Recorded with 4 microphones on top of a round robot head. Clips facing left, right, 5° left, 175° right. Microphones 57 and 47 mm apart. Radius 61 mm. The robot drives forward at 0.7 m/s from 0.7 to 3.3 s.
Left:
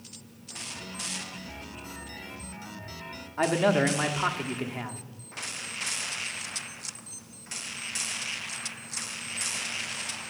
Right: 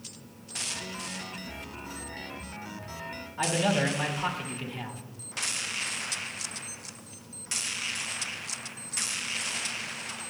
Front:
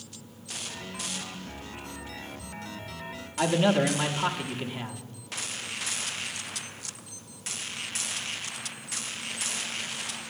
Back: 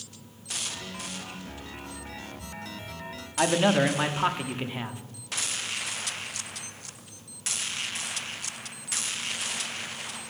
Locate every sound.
3.4 s a man speaking: 125° left, 0.9 m